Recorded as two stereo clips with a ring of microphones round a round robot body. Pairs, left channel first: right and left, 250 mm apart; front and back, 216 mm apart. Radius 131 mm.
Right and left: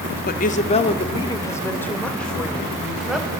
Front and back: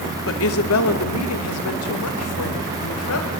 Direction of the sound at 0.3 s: 35° right.